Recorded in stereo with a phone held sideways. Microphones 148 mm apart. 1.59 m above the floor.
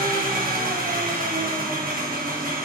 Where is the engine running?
65° right (ahead or behind), 1.4 m.